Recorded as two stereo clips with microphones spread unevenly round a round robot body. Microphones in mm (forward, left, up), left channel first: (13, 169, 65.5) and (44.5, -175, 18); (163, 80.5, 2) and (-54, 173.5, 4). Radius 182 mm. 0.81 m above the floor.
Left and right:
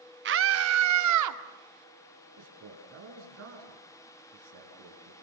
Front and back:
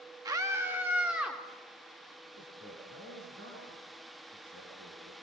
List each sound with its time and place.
0.2 s a scream: 125° right, 1.2 m; by 1.4 s 115° right, 2.5 m
2.4 s a man speaking: 140° right, 8.5 m